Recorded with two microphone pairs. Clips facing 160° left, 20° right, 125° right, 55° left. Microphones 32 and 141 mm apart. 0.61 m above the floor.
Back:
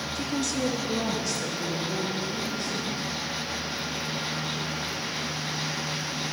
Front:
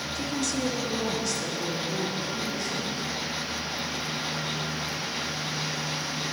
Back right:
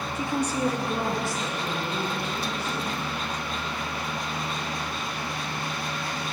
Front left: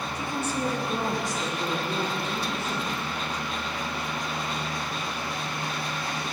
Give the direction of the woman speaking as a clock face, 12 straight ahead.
4 o'clock.